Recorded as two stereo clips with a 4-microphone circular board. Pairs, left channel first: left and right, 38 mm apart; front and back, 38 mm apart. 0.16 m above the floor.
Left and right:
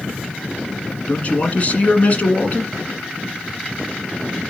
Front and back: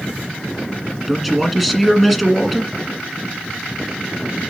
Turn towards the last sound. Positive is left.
turn(degrees=95)